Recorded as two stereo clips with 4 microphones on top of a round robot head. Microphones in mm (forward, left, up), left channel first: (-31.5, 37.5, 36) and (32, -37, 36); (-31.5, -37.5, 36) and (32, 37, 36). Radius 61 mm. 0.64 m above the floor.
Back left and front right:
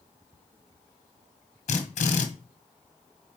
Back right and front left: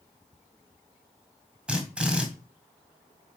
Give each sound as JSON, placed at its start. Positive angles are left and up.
{"t": 1.7, "sound": "a drill", "azimuth_deg": 130, "distance_m": 1.8}